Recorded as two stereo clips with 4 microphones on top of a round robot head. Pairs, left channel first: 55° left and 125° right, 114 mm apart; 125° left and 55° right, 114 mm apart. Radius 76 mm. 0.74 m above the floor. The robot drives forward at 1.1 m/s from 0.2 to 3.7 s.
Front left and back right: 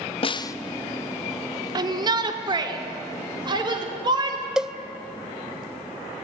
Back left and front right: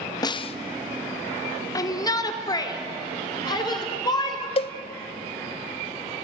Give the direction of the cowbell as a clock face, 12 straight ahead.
7 o'clock.